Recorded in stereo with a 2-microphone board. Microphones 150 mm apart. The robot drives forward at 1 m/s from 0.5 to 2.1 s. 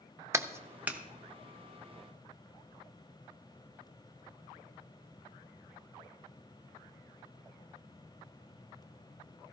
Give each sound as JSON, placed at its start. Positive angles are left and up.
{"t": 0.3, "sound": "a clap", "side_deg": -20, "distance_m": 0.5}